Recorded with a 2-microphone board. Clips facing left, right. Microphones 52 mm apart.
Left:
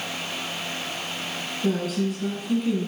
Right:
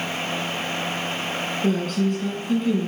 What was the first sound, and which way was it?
A woman speaking, 5° left (ahead or behind).